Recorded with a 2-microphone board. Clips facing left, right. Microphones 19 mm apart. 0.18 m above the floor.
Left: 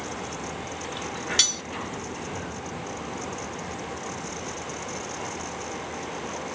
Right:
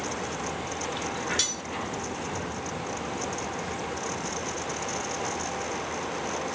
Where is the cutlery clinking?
30° left (ahead or behind), 0.7 m.